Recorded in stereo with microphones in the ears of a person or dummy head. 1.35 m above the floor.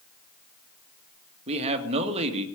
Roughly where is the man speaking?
Right.